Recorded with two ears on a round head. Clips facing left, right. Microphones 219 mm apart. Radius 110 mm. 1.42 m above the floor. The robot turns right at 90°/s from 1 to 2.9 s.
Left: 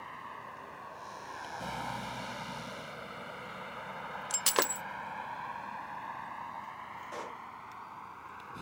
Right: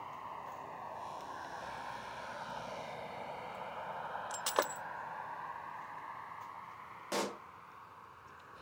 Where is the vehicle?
30° left (ahead or behind); by 8.6 s 75° left (ahead or behind).